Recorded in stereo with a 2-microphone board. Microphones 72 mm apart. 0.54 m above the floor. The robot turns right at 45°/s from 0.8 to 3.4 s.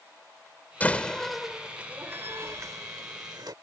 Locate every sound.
0.8 s a door slam: 25° left (ahead or behind); by 3.5 s 65° right (ahead or behind)